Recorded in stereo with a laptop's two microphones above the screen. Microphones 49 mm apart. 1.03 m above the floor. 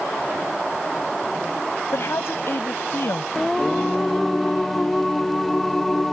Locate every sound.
1.9 s a woman speaking: 55° left (ahead or behind)
3.4 s singing: 5° left (ahead or behind)